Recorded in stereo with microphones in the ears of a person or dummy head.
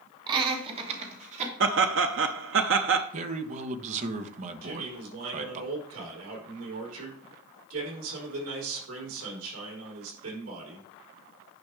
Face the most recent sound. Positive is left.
turn(degrees=-80)